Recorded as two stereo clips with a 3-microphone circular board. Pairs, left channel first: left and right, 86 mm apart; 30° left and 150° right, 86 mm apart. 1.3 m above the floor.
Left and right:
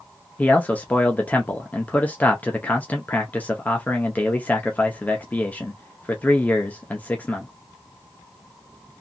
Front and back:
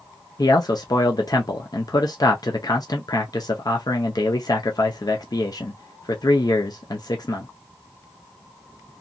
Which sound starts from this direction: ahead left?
A man speaking, at 0.4 s.